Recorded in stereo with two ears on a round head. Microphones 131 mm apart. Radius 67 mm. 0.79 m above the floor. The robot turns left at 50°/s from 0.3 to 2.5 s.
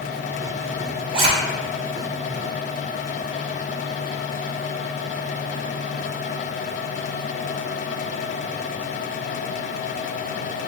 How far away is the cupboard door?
No cupboard door in this recording.